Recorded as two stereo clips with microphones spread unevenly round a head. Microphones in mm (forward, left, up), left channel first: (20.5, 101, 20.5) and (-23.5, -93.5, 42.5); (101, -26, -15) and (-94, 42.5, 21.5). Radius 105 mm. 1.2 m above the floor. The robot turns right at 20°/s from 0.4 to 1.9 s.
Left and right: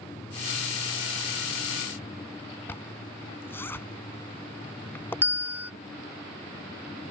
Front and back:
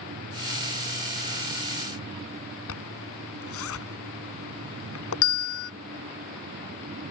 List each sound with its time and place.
2.7 s a zipper: 5° right
5.2 s a bell: 20° right